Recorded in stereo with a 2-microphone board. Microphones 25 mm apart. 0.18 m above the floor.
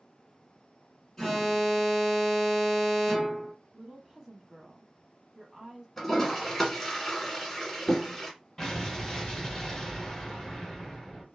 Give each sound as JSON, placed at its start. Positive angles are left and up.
{"t": 1.2, "sound": "an alarm", "side_deg": 15, "distance_m": 2.0}
{"t": 3.7, "sound": "a woman speaking", "side_deg": -20, "distance_m": 1.0}
{"t": 6.0, "sound": "a toilet flushing", "side_deg": 10, "distance_m": 1.4}
{"t": 8.6, "sound": "an explosion", "side_deg": 20, "distance_m": 1.8}